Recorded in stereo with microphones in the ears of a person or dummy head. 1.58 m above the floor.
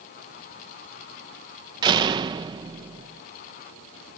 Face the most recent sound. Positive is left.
turn(degrees=-25)  # may be behind; listen again after turning